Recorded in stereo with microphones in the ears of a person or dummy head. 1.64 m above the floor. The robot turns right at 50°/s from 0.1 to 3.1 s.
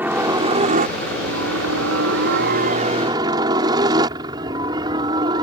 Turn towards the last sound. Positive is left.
turn(degrees=-25)  # may be behind; listen again after turning